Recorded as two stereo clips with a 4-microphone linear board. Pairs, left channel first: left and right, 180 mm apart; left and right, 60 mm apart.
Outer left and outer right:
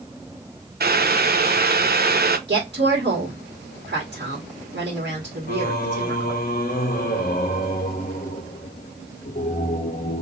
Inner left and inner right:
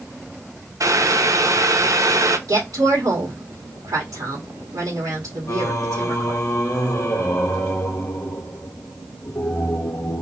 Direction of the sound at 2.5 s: 70° right (ahead or behind).